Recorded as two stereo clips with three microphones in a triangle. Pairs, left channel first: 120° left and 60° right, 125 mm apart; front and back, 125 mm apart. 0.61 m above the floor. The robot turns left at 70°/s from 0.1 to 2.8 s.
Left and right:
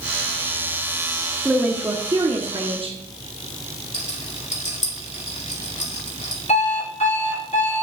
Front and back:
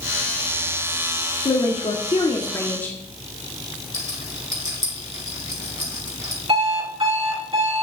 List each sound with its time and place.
1.4 s a woman speaking: 25° left, 0.9 m; by 3.0 s 70° right, 0.9 m
3.9 s a rattle: 120° left, 2.5 m
6.5 s an alarm clock: 145° left, 3.5 m